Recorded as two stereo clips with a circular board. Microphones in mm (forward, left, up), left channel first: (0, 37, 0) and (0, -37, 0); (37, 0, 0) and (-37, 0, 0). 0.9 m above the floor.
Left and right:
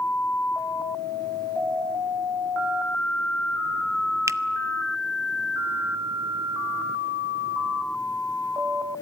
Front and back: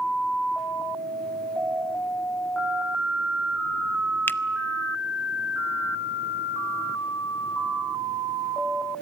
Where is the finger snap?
55° right, 0.6 m.